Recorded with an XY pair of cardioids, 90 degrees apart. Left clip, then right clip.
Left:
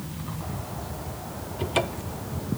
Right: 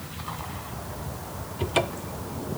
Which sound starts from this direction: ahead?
A cupboard door, at 1.6 s.